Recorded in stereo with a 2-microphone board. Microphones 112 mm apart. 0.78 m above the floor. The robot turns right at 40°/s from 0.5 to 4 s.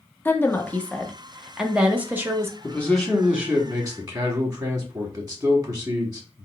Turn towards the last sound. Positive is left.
turn(degrees=-145)